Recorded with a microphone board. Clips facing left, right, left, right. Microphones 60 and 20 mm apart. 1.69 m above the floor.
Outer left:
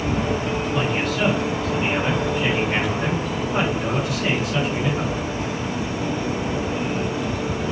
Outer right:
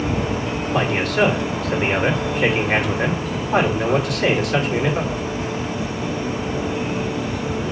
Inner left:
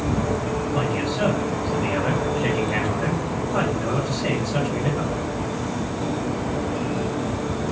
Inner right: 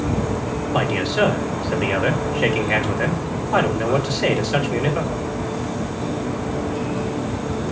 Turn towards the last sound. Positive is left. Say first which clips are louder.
# outer right 6 dB, inner right 7 dB
turn(degrees=-60)  # may be behind; listen again after turning